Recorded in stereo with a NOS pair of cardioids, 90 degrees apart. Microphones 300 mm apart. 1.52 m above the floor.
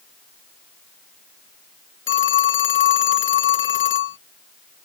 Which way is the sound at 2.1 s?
40° left.